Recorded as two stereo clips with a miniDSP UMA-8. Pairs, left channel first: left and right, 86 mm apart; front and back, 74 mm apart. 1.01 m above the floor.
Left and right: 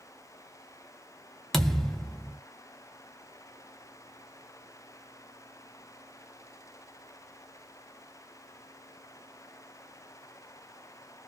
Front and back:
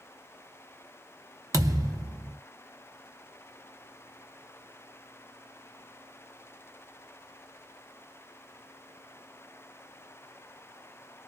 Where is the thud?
175° left, 0.7 m.